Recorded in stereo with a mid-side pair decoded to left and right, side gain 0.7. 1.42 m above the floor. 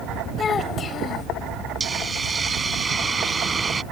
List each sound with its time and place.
0.4 s a child speaking: 30° left
1.8 s a hiss: 20° right